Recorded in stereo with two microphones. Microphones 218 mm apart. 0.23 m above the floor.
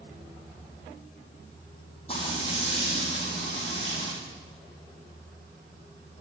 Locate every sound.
2.1 s frying: 30° left (ahead or behind), 6.5 m